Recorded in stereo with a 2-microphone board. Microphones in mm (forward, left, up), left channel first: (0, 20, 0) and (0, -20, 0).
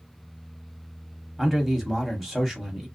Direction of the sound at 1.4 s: Centre (ahead or behind).